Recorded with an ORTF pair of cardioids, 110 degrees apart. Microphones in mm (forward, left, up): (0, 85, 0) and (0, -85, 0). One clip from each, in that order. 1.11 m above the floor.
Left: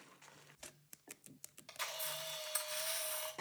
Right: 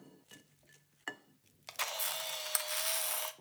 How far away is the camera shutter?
About 0.6 m.